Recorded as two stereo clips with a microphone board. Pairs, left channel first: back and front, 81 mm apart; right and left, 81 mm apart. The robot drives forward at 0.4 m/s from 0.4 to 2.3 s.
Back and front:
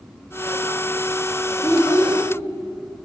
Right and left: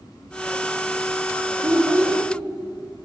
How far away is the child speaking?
About 1.4 m.